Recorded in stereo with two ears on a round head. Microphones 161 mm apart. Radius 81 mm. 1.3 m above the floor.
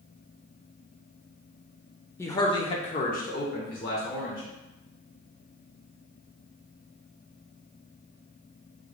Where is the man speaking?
15° left (ahead or behind), 0.6 m; by 4.4 s 55° left (ahead or behind), 1.1 m.